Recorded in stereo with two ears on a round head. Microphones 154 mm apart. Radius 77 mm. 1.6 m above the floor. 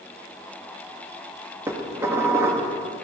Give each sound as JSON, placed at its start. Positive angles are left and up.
{"t": 1.7, "sound": "dishes clattering", "side_deg": -15, "distance_m": 1.5}